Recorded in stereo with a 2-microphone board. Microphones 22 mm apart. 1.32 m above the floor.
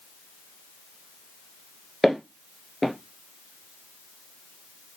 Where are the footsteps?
Centre (ahead or behind), 1.4 m.